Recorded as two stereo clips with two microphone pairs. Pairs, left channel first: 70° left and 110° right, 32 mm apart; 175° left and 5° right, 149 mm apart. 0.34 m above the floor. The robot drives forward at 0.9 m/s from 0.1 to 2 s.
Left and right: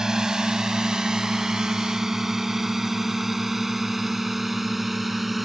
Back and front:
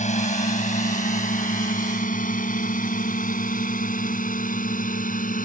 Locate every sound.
0.0 s a drone: straight behind; by 5.5 s 160° left